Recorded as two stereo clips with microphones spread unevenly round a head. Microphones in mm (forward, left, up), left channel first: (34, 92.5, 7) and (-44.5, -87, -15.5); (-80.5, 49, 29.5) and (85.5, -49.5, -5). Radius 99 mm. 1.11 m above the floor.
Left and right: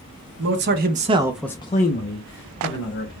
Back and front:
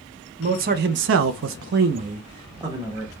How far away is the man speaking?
About 0.9 m.